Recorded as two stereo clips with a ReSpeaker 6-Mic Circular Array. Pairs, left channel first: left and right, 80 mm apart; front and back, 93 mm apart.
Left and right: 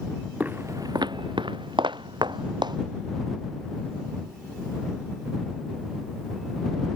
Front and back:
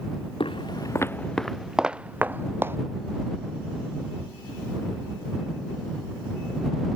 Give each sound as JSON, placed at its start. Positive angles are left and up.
{"t": 0.4, "sound": "footsteps", "azimuth_deg": -20}